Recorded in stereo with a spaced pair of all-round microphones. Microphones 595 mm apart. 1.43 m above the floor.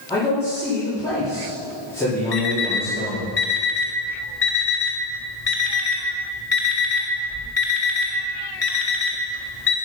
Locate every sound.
0.1 s a man speaking: 5° left (ahead or behind), 3 m
2.3 s an alarm clock: 60° left (ahead or behind), 2 m